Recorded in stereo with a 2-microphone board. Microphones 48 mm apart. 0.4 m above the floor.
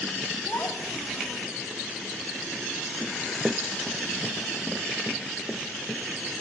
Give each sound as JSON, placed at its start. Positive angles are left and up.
{"t": 0.5, "sound": "a child speaking", "side_deg": 50, "distance_m": 2.5}
{"t": 3.0, "sound": "running footsteps", "side_deg": -10, "distance_m": 0.7}